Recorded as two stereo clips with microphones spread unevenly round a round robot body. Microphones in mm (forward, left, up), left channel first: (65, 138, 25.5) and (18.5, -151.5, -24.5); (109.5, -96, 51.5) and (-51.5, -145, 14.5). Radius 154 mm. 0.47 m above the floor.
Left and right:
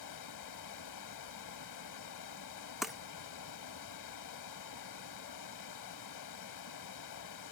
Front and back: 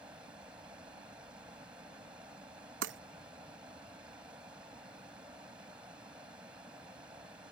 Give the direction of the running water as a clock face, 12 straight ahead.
8 o'clock.